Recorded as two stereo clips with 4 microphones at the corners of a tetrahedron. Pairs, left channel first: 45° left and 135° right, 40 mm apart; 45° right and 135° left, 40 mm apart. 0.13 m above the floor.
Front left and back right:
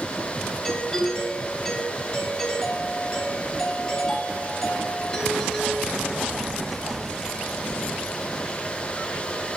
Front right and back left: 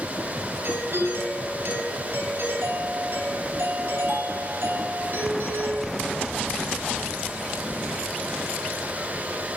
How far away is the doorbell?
About 8.5 m.